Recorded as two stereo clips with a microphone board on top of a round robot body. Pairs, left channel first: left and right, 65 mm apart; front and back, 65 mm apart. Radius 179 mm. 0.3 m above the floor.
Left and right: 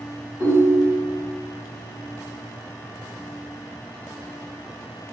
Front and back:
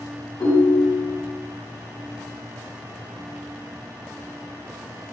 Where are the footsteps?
I don't hear footsteps.